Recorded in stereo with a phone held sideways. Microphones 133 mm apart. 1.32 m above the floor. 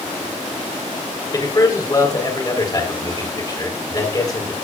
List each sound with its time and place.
1.3 s a man speaking: 30° left (ahead or behind), 4 m